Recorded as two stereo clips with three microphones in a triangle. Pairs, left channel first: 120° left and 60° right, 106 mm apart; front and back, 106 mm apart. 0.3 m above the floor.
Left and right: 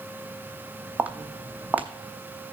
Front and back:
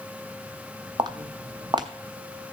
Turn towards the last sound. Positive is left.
turn(degrees=-135)